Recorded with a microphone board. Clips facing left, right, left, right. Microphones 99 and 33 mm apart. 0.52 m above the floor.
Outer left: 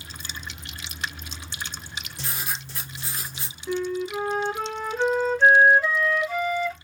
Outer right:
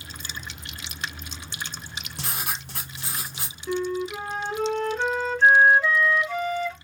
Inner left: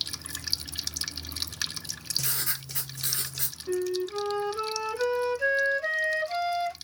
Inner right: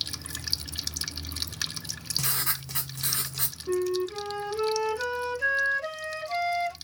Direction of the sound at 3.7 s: 5° left (ahead or behind).